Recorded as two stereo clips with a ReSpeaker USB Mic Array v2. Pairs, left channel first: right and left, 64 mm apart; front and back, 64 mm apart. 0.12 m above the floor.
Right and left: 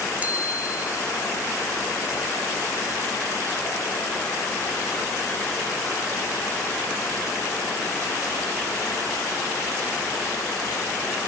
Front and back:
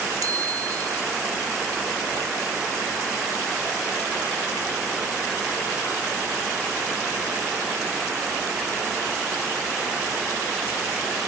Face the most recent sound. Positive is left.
turn(degrees=155)